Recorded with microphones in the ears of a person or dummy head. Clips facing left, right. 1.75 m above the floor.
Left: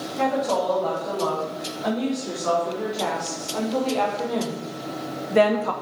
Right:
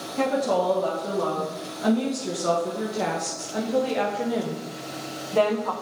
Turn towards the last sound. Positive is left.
turn(degrees=35)  # may be behind; listen again after turning